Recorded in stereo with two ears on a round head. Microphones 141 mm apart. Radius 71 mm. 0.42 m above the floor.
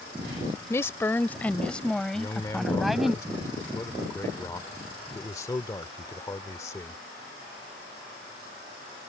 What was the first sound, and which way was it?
A woman speaking, 20° left (ahead or behind).